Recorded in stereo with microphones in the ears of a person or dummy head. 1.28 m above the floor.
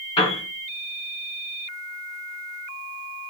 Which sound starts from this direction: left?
A piano, at 0.2 s.